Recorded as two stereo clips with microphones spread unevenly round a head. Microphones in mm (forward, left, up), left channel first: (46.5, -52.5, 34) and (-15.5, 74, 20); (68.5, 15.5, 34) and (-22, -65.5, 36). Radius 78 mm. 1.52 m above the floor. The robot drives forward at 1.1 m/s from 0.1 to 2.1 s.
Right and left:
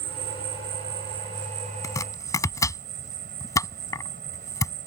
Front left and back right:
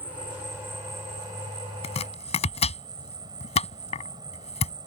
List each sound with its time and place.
0.0 s an insect: 140° left; by 4.9 s 155° left
1.8 s chopping: 5° left